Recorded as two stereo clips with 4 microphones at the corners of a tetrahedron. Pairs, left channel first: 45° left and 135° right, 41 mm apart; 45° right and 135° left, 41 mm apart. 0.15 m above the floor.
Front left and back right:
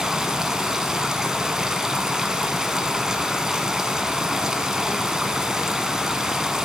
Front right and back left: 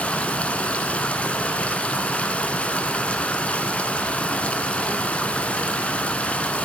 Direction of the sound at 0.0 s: 70° right.